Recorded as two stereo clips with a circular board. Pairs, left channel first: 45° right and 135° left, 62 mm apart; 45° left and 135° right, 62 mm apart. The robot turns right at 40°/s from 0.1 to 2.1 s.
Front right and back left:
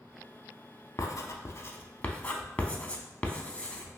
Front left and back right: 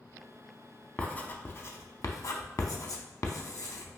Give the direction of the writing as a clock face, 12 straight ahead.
1 o'clock.